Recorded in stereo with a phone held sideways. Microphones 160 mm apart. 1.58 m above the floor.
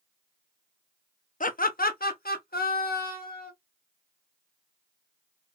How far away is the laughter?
About 0.5 m.